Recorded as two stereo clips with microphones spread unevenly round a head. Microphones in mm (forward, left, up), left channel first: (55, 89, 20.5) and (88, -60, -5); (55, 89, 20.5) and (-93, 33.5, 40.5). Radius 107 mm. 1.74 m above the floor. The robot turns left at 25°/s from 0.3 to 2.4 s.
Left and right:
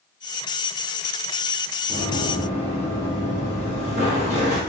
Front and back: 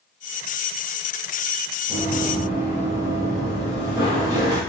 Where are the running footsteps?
170° right, 1.8 m; by 4.6 s 120° right, 2.5 m.